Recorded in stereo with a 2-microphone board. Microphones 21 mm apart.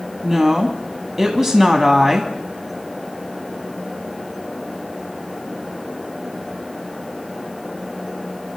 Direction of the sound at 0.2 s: 25° right (ahead or behind).